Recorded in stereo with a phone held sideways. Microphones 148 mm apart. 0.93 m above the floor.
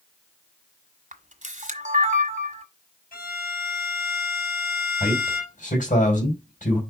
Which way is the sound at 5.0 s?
65° left (ahead or behind).